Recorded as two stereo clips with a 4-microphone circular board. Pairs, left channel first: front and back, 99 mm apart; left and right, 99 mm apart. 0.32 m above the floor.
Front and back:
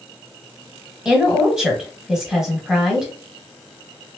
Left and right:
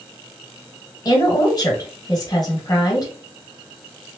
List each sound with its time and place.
1.1 s a woman speaking: 100° left, 1.3 m